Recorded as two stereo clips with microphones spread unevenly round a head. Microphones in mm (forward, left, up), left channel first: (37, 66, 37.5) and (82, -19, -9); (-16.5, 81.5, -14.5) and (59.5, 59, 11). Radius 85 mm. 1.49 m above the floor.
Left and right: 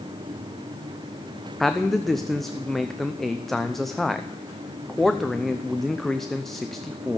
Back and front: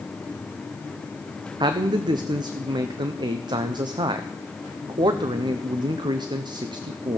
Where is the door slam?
I don't hear a door slam.